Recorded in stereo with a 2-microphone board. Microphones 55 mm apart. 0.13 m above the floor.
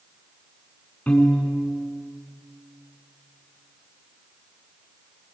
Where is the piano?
30° left (ahead or behind), 6 m.